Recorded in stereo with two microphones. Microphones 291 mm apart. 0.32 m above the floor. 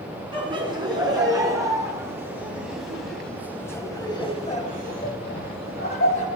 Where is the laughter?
15° right (ahead or behind), 4 m; by 6.3 s 50° left (ahead or behind), 1.8 m.